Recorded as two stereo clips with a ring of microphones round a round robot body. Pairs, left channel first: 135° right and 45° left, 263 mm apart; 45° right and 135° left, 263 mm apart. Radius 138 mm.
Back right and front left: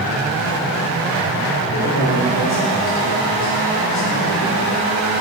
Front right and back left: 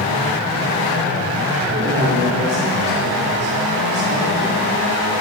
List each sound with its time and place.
1.7 s a man speaking: 175° right, 2.5 m